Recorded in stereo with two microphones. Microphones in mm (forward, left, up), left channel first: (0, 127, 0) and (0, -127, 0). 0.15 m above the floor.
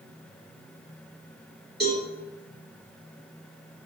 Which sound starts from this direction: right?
A cowbell, at 1.8 s.